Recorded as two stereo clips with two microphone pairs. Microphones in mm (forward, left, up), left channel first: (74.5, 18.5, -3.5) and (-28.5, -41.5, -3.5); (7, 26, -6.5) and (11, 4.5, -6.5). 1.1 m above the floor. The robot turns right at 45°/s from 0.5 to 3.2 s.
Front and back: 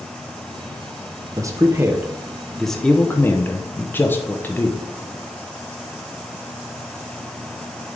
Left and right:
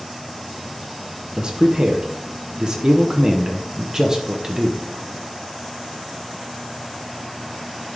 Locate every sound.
1.4 s a man speaking: 115° right, 0.8 m; by 4.8 s 30° right, 0.8 m